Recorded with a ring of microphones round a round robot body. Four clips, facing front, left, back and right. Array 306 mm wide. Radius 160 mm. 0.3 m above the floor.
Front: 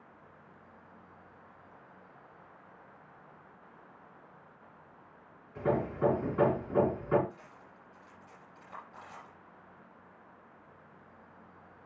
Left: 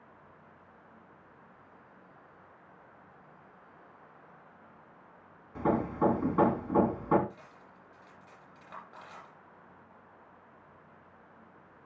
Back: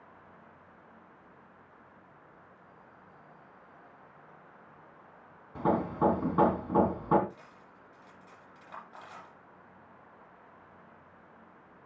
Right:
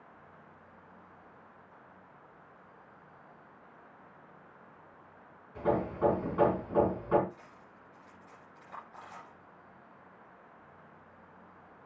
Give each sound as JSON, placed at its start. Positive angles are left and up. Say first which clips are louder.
{"t": 5.5, "sound": "hammering", "louder": "left 1 dB, back 2 dB", "azimuth_deg": 145, "distance_m": 3.0}
{"t": 7.3, "sound": "cutlery clinking", "louder": "even, even", "azimuth_deg": 125, "distance_m": 8.0}